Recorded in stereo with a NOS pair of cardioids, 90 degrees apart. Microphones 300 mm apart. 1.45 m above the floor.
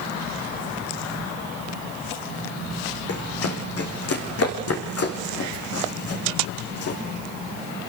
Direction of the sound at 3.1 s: 55° left.